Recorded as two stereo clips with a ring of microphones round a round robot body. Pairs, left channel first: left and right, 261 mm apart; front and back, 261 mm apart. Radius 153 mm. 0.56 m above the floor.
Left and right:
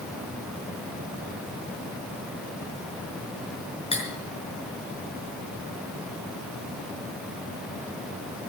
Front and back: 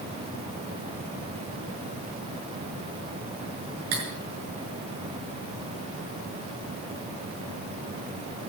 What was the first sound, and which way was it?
Cutlery clinking, 160° left.